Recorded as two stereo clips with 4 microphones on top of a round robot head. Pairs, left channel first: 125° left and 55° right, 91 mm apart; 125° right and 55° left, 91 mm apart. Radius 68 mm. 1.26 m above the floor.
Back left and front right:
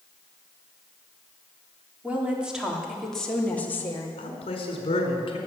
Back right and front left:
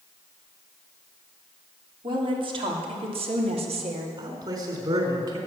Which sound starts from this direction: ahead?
A woman speaking, at 2.0 s.